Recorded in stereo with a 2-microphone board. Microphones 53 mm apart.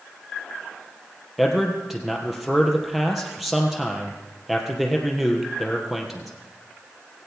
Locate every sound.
1.4 s a man speaking: 5° right (ahead or behind), 3 m